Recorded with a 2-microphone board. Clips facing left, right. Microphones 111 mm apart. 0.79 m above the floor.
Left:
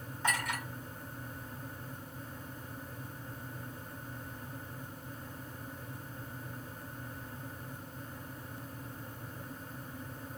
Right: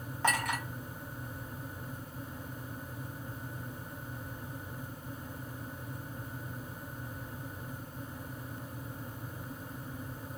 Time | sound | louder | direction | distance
0.2 | a clink | right 3 dB | 75° right (ahead or behind) | 3 m